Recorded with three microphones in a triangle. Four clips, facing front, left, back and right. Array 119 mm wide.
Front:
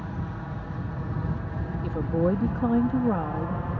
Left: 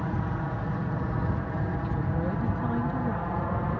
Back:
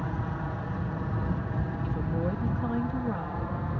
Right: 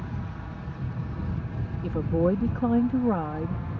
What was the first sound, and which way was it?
An aircraft, 115° left.